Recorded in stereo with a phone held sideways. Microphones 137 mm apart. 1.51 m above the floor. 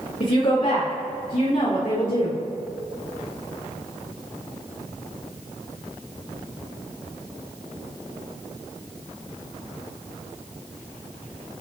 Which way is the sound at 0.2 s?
65° left (ahead or behind).